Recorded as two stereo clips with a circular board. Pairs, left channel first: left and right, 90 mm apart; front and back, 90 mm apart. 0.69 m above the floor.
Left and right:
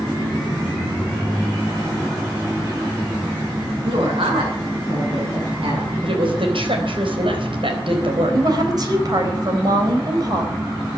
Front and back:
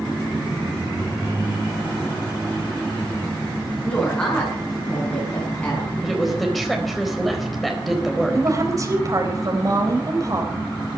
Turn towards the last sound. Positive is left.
turn(degrees=-130)